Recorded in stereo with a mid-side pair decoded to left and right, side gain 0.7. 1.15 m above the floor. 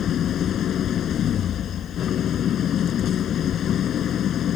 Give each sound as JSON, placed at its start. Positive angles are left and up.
{"t": 0.0, "sound": "an engine running", "azimuth_deg": 45}